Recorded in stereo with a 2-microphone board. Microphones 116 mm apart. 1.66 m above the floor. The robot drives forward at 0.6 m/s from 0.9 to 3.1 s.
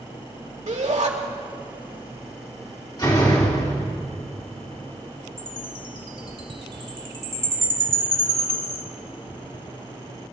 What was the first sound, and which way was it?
A shout, 65° right (ahead or behind).